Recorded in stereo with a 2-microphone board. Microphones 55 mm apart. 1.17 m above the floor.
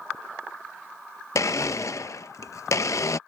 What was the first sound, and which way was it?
A blender, 65° left (ahead or behind).